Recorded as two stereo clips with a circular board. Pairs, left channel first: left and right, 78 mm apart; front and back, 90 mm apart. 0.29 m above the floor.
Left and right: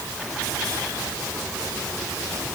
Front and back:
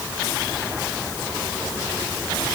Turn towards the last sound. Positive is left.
No sound to turn to.